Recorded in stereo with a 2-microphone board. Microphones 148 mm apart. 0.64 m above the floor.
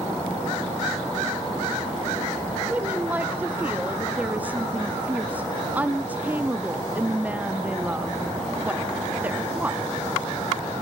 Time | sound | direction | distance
2.7 | a woman speaking | 10° right (ahead or behind) | 0.8 m